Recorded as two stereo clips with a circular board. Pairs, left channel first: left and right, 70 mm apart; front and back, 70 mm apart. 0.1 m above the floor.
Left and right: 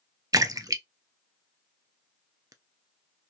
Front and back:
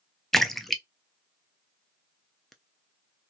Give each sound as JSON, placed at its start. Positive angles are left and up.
{"t": 0.3, "sound": "a splash", "azimuth_deg": -85, "distance_m": 0.5}